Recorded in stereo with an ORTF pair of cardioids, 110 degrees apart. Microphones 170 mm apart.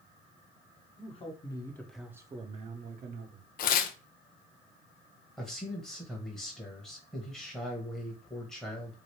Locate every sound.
1.0 s a man speaking: 40° left, 1.3 m; by 3.5 s 80° right, 1.3 m
3.6 s tearing paper: 60° left, 0.5 m
5.4 s a man speaking: 5° left, 1.0 m